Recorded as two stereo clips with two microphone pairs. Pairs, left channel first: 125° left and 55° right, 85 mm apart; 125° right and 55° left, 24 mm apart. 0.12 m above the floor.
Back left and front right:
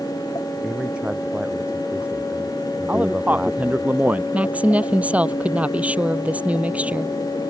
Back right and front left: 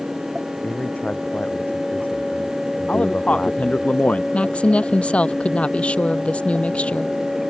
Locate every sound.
0.6 s a man speaking: 130° right
2.9 s a man speaking: 125° right
4.3 s a woman speaking: 125° right